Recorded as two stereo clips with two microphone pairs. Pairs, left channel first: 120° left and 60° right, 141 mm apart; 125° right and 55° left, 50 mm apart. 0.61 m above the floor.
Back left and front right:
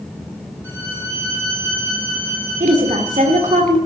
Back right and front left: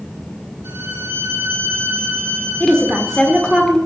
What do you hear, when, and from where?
0.6 s a violin: 20° left, 5 m
2.6 s a woman speaking: 45° right, 1.7 m